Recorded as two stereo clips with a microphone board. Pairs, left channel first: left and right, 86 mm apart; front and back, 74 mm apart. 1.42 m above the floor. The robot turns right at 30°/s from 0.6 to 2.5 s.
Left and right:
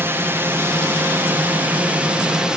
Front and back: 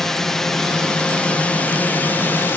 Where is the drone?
75° right; by 2.6 s 20° right.